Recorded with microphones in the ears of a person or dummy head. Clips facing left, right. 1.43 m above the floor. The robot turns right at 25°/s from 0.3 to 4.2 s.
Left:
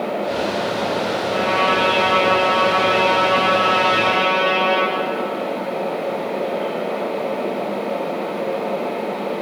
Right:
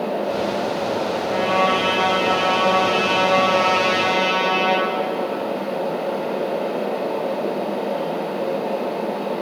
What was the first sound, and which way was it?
A trumpet, 145° right.